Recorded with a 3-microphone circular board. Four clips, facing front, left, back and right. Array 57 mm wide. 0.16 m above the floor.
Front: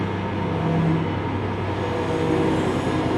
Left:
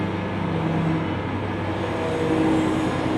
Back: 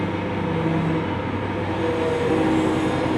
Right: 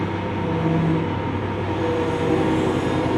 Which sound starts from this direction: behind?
An engine running, at 0.0 s.